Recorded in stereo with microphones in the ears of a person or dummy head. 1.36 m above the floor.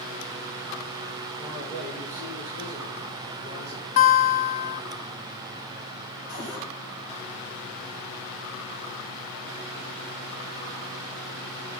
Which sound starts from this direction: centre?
A man speaking, at 1.4 s.